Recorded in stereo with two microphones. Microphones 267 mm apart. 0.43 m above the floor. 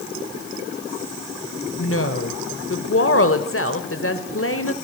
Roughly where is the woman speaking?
Left.